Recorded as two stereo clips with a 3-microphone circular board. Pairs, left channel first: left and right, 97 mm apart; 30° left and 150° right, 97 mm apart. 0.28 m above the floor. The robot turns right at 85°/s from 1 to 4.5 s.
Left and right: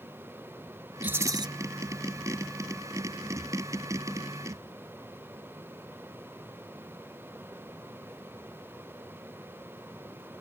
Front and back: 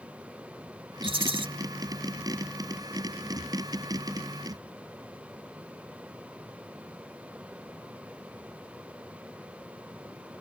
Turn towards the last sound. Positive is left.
turn(degrees=130)